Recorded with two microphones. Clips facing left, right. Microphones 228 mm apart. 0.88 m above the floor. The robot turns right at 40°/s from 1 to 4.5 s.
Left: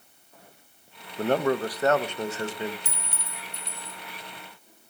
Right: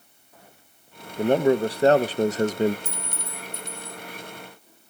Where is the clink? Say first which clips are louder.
Right 5 dB; 90° left, 1.2 m; by 4.0 s 135° left, 1.2 m.